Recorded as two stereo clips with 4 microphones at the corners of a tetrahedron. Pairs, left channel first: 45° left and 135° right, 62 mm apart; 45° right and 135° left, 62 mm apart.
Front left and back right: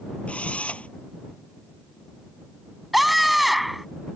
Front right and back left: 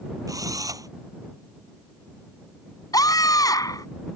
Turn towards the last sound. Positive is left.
turn(degrees=-45)